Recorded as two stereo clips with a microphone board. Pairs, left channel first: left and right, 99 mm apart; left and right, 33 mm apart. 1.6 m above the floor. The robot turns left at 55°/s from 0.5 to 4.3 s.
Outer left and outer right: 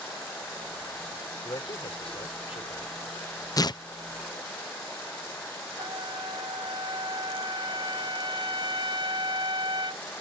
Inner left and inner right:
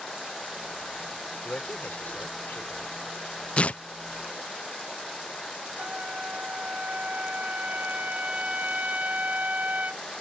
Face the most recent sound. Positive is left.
turn(degrees=-60)  # may be behind; listen again after turning